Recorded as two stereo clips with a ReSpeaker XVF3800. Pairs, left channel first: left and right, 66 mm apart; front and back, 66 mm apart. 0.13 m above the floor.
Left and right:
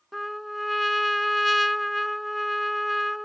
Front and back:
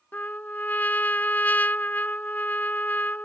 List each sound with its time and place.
0.1 s a trumpet: straight ahead